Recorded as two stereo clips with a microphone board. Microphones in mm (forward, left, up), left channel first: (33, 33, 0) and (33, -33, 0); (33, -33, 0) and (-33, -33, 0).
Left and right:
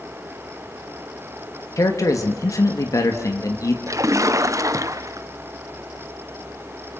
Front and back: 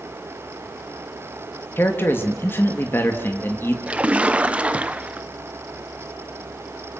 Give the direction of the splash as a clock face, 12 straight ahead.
4 o'clock.